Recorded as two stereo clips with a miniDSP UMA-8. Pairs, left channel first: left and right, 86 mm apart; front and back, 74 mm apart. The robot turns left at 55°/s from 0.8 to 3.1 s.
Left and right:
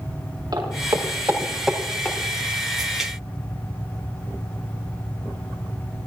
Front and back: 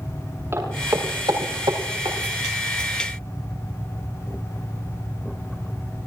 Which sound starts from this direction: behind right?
Footsteps, at 0.5 s.